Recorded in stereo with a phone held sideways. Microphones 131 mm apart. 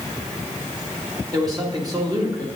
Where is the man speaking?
30° right (ahead or behind), 1.8 m.